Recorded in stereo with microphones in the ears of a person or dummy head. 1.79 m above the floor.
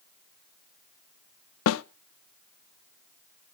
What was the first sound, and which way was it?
A snare drum, 80° left.